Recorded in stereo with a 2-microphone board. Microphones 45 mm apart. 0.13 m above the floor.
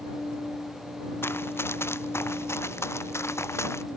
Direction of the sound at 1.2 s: 60° left (ahead or behind).